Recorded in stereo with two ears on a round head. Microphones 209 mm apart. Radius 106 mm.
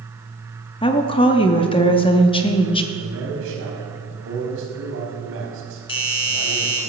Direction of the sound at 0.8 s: 20° left (ahead or behind).